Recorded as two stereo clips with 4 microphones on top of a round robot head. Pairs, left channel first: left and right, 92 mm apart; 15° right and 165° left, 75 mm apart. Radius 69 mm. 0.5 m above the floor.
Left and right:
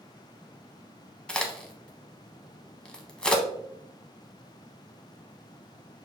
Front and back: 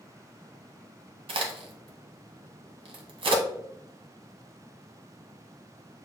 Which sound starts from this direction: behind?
A crack, at 1.3 s.